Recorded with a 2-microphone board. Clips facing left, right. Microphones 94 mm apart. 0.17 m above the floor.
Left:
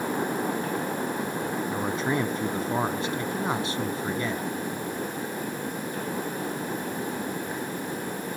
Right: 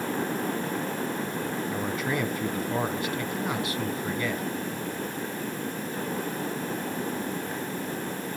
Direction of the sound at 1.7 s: 30° left (ahead or behind).